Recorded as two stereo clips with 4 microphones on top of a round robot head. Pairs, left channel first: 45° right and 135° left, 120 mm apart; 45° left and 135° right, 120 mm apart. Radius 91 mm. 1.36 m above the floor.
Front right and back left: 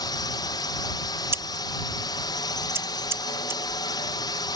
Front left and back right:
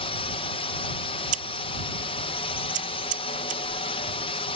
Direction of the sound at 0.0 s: 10° left.